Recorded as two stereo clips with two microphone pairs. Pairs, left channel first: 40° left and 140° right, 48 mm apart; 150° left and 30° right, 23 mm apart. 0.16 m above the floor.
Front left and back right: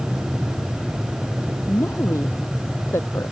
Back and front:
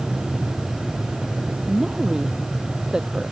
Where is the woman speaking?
30° left.